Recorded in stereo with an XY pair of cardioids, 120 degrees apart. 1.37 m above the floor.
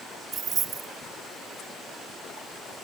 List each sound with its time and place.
0.3 s keys jangling: 40° right, 2 m